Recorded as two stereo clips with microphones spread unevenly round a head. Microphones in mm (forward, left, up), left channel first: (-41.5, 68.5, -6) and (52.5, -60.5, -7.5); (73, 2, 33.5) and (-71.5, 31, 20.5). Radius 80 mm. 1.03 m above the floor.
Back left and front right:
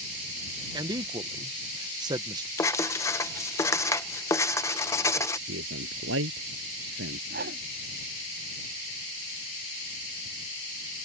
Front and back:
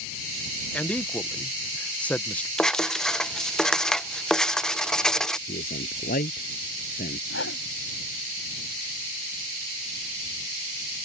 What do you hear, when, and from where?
0.7 s a man speaking: 95° right
2.6 s writing: 80° left
5.5 s a man speaking: 50° right
7.3 s a whoosh: 20° right